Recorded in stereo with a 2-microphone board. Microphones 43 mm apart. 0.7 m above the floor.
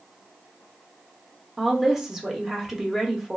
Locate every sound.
1.6 s a woman speaking: 10° right (ahead or behind), 0.7 m